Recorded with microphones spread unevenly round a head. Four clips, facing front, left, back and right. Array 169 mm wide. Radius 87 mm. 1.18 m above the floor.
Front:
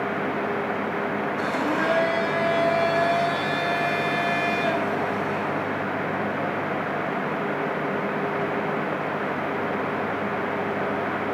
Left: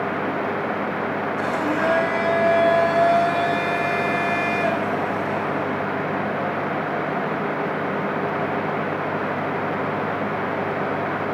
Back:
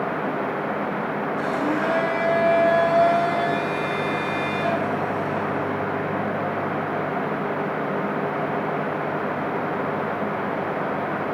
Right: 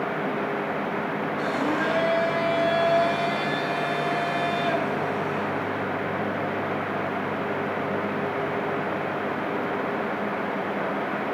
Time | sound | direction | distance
1.4 | a blender | 105° left | 6.5 m